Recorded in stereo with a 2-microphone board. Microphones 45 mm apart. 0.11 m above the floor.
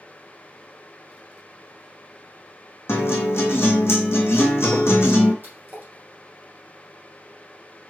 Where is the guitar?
70° left (ahead or behind), 1.3 m.